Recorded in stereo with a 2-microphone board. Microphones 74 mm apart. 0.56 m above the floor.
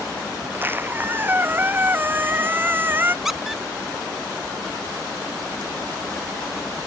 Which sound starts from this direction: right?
A squeak, at 0.4 s.